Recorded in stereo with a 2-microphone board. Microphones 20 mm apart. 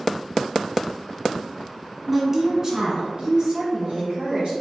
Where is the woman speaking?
5° right (ahead or behind), 1.3 m; by 4.5 s 65° right (ahead or behind), 3.5 m.